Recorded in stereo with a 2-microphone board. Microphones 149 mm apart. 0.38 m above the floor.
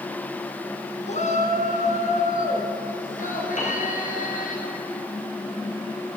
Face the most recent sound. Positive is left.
turn(degrees=50)  # may be behind; listen again after turning